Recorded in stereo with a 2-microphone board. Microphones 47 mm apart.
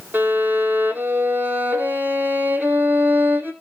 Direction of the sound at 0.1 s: 45° right (ahead or behind).